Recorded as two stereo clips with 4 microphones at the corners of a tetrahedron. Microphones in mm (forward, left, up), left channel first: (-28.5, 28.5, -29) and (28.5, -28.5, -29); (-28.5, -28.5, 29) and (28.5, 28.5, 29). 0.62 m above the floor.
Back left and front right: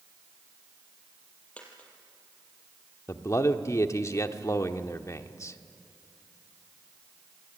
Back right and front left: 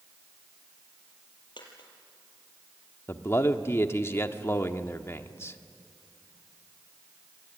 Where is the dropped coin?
150° right, 5 m.